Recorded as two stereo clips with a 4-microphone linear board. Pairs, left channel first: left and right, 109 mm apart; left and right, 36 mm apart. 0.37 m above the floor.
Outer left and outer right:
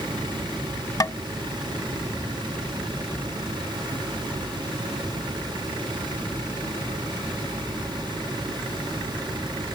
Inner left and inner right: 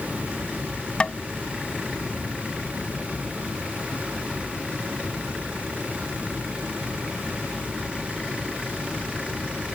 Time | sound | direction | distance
1.0 | tapping | 30° left (ahead or behind) | ?